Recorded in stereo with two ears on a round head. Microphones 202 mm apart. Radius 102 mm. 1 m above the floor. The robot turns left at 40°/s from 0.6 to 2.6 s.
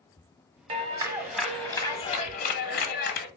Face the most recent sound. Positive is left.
turn(degrees=130)